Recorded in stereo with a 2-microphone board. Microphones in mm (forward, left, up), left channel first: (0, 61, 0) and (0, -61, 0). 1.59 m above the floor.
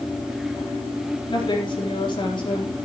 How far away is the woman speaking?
About 4 m.